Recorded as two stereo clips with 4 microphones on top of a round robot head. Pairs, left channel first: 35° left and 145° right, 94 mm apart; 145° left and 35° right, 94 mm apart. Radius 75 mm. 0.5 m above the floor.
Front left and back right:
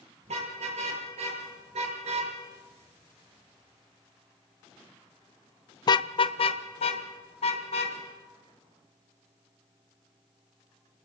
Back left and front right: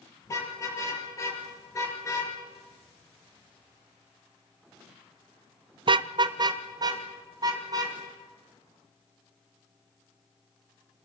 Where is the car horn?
155° right, 7 m; by 8.0 s 15° left, 3.5 m.